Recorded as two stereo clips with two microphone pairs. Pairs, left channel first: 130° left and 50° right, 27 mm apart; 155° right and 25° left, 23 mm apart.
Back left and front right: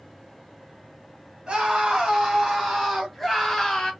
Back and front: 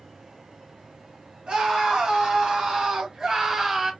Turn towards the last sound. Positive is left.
turn(degrees=95)